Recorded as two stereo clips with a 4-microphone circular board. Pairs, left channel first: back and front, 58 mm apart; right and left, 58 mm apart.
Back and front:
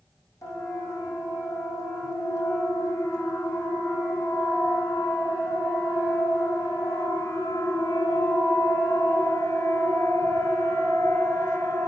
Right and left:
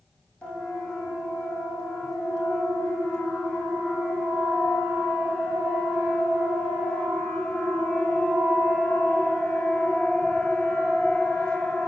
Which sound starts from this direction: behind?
A siren, at 0.4 s.